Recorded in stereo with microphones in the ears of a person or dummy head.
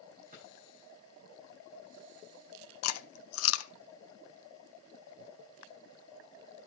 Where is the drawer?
40° right (ahead or behind), 8 m.